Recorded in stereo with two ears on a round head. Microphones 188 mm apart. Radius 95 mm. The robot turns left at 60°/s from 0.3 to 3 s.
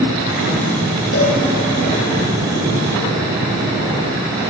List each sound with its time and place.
1.1 s a cowbell: 60° left (ahead or behind), 8 m; by 1.4 s 45° left (ahead or behind), 8 m